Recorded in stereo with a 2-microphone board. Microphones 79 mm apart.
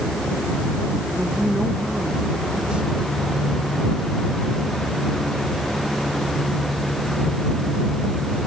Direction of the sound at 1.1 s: 10° right (ahead or behind).